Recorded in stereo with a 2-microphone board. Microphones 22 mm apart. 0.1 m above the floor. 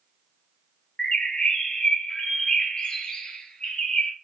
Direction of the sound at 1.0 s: 45° left (ahead or behind).